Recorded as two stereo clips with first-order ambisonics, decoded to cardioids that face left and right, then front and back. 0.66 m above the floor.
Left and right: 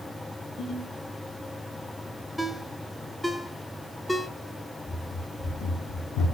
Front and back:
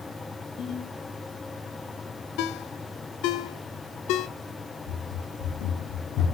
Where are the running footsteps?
15° left, 1.5 m; by 6.3 s 50° left, 1.9 m.